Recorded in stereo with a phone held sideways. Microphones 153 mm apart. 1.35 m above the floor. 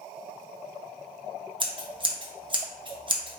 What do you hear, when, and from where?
1.6 s scissors: 30° right (ahead or behind), 0.9 m